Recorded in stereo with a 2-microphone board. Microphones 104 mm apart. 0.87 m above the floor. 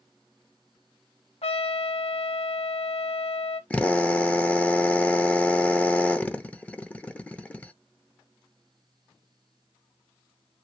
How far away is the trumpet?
About 1.3 m.